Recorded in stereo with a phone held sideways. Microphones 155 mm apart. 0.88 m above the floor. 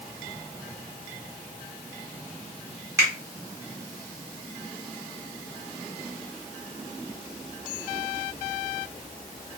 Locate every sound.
3.0 s a finger snap: 20° right (ahead or behind), 1.4 m